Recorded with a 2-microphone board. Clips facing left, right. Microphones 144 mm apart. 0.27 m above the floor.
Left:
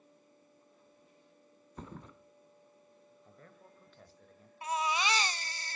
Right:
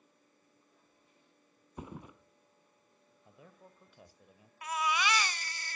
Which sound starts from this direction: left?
A baby crying, at 4.6 s.